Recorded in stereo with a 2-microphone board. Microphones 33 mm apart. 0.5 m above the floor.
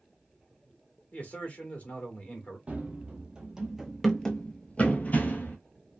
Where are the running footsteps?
35° right (ahead or behind), 1.1 m; by 5.6 s 65° left (ahead or behind), 1.0 m.